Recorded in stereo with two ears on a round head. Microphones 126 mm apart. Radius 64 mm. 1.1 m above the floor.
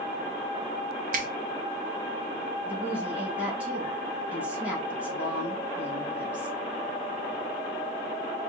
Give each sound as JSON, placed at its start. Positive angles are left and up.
{"t": 1.1, "sound": "a finger snap", "side_deg": -65, "distance_m": 0.9}
{"t": 2.6, "sound": "a woman speaking", "side_deg": -10, "distance_m": 1.7}